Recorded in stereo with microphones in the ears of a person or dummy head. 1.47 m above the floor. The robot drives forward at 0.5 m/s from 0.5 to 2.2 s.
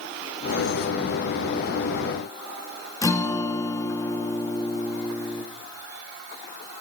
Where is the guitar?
20° left (ahead or behind), 1.6 m.